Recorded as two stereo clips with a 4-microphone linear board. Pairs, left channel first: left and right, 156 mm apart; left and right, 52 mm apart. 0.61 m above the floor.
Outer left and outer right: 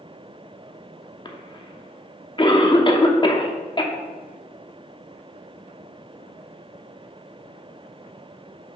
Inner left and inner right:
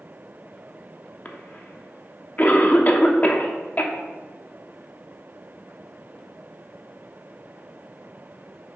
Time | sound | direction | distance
1.2 | a cough | 35° left (ahead or behind) | 0.9 m